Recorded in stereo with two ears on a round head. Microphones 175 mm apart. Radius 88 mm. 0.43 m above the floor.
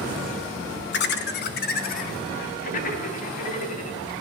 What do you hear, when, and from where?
0.9 s laughter: 55° left (ahead or behind), 2 m; by 4.0 s 35° left (ahead or behind), 4 m